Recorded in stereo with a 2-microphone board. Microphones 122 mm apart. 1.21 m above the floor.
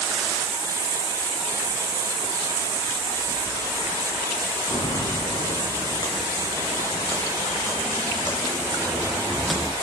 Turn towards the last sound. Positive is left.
turn(degrees=-5)  # may be behind; listen again after turning